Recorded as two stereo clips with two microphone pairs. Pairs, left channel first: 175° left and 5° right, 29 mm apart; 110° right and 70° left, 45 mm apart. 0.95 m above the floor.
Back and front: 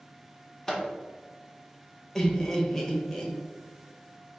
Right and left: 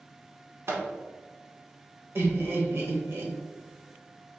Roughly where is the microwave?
Left.